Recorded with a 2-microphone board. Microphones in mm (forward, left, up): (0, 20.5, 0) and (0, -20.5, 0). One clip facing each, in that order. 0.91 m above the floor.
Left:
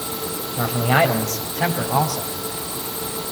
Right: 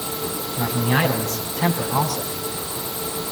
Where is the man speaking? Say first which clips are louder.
Left 3 dB; 80° left, 5.5 m; by 2.4 s 85° left, 7.5 m.